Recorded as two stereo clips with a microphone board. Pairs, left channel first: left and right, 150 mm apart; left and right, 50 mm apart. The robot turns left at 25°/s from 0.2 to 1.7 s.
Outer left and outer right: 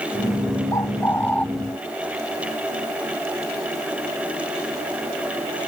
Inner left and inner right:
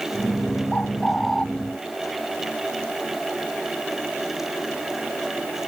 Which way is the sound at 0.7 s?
25° left (ahead or behind).